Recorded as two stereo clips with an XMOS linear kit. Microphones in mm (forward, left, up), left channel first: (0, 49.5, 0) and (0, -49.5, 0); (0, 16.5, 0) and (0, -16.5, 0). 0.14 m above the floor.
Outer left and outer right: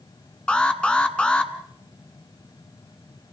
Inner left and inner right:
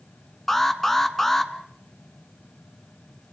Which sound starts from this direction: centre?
An alarm, at 0.5 s.